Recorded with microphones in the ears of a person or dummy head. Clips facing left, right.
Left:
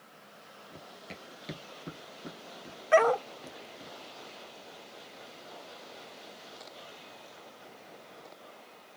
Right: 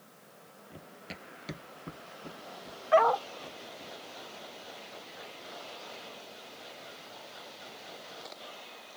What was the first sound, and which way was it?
Running footsteps, 5° right (ahead or behind).